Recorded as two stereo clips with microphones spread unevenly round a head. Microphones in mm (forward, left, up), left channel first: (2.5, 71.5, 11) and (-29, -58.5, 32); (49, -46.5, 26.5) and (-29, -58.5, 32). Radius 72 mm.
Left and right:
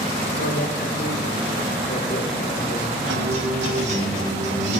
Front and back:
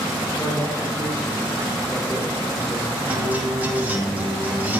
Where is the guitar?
105° right, 4 m.